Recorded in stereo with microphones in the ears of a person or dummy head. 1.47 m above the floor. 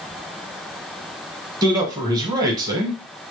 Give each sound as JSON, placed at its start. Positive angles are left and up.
{"t": 1.6, "sound": "a man speaking", "side_deg": -20, "distance_m": 1.1}